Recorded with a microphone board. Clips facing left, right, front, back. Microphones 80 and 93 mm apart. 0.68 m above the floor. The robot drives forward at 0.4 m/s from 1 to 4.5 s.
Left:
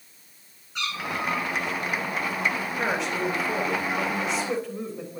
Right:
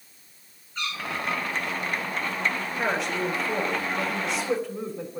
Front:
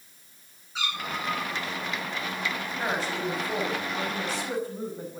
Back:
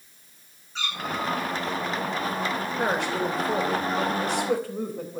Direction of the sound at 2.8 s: Straight behind.